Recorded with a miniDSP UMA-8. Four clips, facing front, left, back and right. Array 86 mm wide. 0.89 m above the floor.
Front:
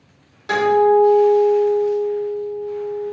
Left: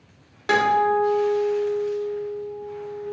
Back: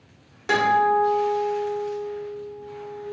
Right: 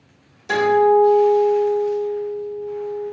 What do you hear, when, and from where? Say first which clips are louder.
0.5 s a guitar: right 4 dB, front 5 dB; 100° left, 1.4 m